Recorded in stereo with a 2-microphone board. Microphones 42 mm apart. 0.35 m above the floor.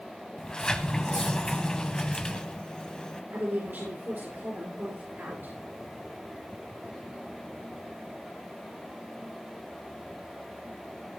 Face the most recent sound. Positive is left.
turn(degrees=-50)  # may be behind; listen again after turning